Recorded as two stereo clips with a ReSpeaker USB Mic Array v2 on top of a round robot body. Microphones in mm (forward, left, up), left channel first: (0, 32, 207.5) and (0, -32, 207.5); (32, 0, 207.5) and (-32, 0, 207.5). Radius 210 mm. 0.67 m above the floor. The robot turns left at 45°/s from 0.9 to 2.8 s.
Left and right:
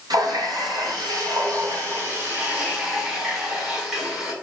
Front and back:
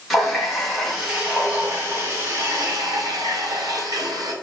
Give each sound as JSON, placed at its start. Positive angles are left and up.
{"t": 0.1, "sound": "a running tap", "azimuth_deg": -90, "distance_m": 2.0}